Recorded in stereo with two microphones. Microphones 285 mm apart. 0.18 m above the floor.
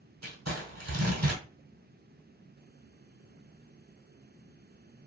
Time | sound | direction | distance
0.2 | crumpling | 70° right (ahead or behind) | 1.7 m